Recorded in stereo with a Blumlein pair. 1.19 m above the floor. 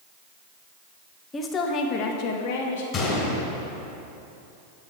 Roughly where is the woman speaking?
Ahead.